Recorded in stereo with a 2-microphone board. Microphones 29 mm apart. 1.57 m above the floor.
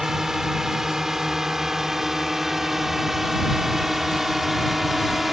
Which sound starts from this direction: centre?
A drone, at 0.0 s.